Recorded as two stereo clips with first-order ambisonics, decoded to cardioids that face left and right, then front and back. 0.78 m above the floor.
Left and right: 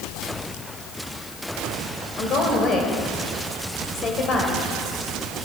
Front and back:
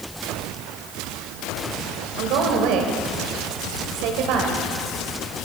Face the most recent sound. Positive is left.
turn(degrees=150)